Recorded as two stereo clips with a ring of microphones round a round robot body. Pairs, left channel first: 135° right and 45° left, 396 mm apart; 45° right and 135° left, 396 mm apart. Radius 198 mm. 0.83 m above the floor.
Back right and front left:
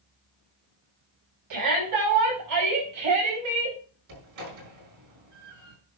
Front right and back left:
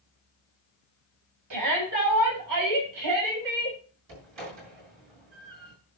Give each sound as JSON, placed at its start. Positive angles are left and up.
{"t": 1.5, "sound": "a shout", "azimuth_deg": 90, "distance_m": 7.0}
{"t": 4.1, "sound": "a door slam", "azimuth_deg": 95, "distance_m": 7.0}